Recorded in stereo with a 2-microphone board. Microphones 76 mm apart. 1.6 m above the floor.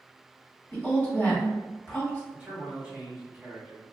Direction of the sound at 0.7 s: 20° left (ahead or behind).